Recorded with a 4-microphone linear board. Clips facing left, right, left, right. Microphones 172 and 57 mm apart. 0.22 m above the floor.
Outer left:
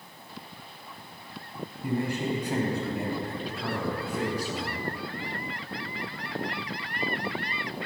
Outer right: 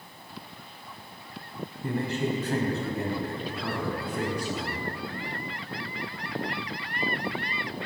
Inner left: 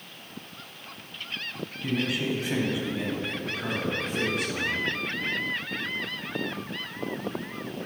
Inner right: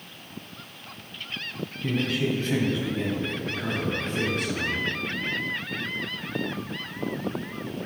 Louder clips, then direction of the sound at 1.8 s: Even, inner right 2 dB; 15° left (ahead or behind).